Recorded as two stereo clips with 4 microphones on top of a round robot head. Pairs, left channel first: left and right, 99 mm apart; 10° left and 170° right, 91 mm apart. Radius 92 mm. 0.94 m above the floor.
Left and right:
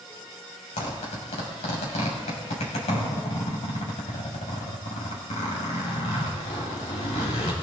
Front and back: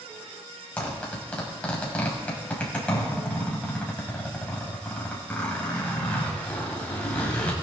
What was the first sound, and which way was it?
A zipper, 85° left.